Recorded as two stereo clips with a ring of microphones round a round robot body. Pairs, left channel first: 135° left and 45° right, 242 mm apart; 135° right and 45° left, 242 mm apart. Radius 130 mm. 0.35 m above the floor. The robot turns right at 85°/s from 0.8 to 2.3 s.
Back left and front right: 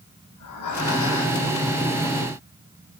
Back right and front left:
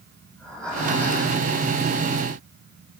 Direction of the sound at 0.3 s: 140° left.